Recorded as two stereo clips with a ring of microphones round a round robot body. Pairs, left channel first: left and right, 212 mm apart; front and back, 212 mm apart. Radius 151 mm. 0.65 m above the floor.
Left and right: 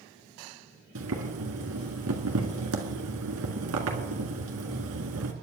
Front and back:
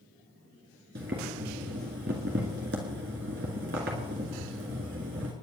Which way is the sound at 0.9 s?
125° right.